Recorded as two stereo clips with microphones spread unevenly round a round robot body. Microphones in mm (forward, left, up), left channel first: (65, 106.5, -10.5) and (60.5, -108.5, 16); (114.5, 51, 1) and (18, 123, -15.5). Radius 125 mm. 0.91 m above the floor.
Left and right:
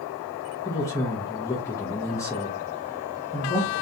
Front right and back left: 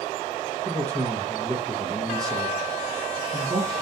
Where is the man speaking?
150° left, 0.6 m.